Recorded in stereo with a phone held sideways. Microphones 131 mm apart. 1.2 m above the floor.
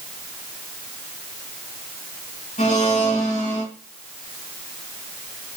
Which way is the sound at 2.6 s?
75° left (ahead or behind).